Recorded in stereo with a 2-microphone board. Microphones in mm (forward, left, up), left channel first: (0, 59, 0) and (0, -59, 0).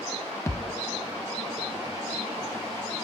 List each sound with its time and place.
0.5 s a thud: 25° left (ahead or behind), 0.7 m